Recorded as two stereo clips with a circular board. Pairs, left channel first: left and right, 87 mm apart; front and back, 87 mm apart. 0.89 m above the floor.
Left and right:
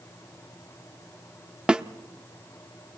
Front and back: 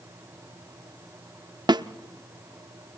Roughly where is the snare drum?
Behind.